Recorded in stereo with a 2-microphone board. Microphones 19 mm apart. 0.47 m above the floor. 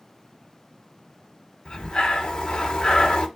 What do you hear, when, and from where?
1.6 s breathing: 40° left (ahead or behind), 0.9 m